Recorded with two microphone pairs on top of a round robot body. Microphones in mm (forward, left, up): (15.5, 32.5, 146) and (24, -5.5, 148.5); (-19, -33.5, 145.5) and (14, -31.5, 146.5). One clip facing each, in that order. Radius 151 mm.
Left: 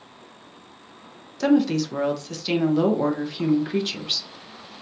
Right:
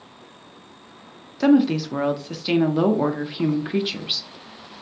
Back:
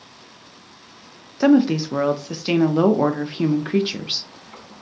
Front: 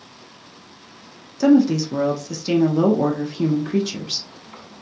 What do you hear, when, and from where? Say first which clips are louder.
1.4 s a woman speaking: right 2 dB, front 1 dB; 150° right, 0.5 m